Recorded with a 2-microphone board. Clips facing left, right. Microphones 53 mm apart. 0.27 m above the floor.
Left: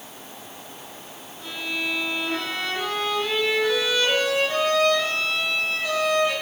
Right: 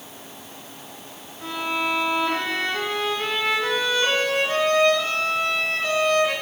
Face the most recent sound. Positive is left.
turn(degrees=-50)  # may be behind; listen again after turning